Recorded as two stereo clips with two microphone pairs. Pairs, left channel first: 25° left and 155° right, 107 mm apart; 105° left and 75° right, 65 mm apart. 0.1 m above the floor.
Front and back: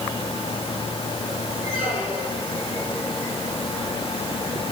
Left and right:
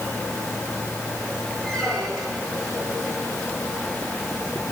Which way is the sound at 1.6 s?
20° left.